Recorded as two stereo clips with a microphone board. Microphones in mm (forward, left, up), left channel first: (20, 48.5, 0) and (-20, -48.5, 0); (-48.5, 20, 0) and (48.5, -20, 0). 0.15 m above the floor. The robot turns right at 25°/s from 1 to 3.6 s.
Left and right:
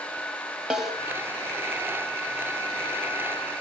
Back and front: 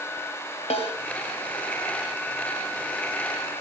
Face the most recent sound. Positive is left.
turn(degrees=-130)